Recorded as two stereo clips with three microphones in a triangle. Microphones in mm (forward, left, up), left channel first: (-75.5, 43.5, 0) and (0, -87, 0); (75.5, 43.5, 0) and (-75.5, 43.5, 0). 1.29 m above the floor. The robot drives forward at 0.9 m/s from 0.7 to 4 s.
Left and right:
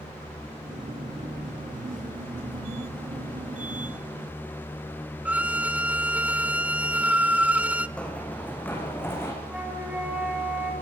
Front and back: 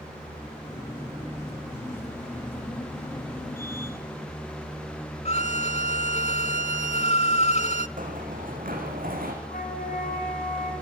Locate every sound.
5.2 s a violin: 15° left, 1.2 m
8.0 s running footsteps: 160° right, 5.5 m; by 9.3 s 165° right, 6.5 m
9.4 s a flute: 20° left, 6 m